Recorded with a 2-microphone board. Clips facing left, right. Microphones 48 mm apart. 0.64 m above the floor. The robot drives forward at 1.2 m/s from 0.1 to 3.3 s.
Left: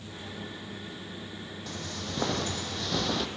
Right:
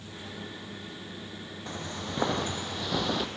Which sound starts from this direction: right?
Footsteps, at 1.7 s.